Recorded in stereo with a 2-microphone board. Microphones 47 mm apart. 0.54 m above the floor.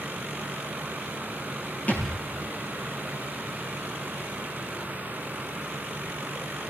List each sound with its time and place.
1.9 s a thud: 30° left (ahead or behind), 6.5 m